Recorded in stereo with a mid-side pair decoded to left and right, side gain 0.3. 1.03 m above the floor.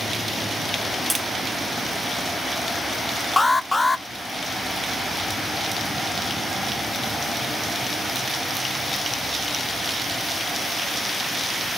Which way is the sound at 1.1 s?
5° left.